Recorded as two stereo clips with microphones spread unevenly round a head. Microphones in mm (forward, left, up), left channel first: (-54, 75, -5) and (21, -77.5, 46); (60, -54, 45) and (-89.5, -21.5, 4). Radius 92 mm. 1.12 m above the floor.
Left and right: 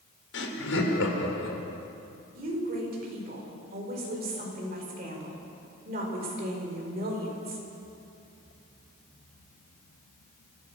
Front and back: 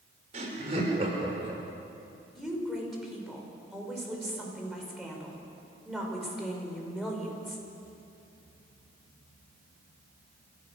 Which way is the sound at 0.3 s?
115° left.